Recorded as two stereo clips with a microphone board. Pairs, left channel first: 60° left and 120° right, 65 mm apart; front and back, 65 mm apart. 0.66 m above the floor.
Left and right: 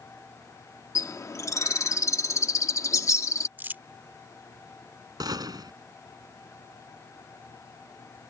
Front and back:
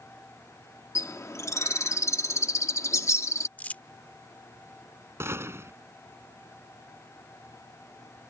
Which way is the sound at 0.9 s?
30° left.